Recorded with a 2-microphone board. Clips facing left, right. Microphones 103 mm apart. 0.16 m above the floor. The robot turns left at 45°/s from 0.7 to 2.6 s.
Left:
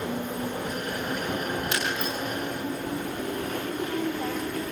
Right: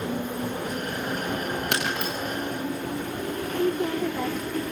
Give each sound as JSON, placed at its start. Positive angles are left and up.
{"t": 1.7, "sound": "breaking glass", "side_deg": -60, "distance_m": 7.5}
{"t": 3.5, "sound": "a woman speaking", "side_deg": -80, "distance_m": 10.0}